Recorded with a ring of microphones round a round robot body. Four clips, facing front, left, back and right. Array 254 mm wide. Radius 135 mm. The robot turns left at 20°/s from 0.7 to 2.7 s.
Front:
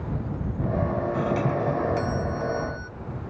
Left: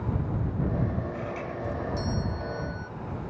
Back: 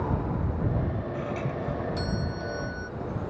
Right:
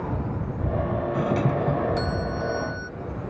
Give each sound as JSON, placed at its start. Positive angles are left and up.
{"t": 1.1, "sound": "a doorbell", "azimuth_deg": -60}